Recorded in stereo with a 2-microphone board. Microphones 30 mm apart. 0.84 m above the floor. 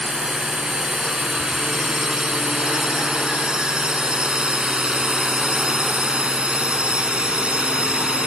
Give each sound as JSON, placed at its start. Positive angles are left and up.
{"t": 0.0, "sound": "a drone", "side_deg": -20}